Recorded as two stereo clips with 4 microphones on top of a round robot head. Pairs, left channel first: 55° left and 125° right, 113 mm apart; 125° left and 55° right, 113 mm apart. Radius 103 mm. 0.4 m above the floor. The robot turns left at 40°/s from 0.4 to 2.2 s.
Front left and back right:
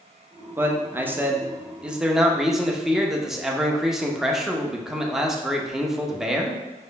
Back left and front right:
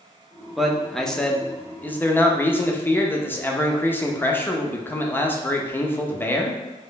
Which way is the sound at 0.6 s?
140° right.